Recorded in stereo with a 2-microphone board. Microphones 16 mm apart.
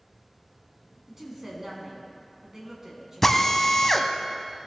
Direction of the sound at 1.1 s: 20° right (ahead or behind).